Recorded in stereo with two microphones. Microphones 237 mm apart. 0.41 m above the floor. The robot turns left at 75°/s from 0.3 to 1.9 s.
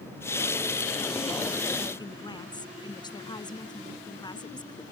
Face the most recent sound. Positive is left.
turn(degrees=20)  # may be behind; listen again after turning